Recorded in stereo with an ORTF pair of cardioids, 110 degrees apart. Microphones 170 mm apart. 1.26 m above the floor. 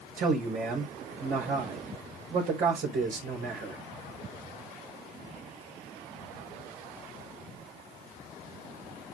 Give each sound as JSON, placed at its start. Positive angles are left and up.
{"t": 0.2, "sound": "a man speaking", "azimuth_deg": -60, "distance_m": 4.0}